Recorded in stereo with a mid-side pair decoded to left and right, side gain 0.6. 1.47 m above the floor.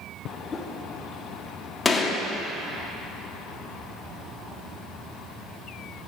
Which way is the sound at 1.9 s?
20° left.